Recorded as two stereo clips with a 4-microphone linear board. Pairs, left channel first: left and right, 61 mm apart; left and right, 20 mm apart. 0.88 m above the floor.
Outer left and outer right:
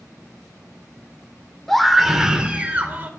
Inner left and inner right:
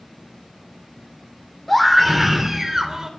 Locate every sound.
1.7 s a scream: 5° left (ahead or behind), 2 m; by 3.1 s 30° right (ahead or behind), 2.5 m